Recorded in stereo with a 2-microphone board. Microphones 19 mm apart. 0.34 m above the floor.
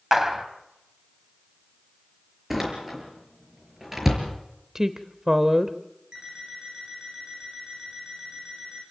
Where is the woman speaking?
20° right (ahead or behind), 0.9 m.